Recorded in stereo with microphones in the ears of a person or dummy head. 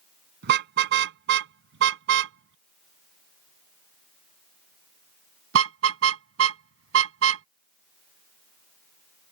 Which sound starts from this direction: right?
A car horn, at 0.4 s.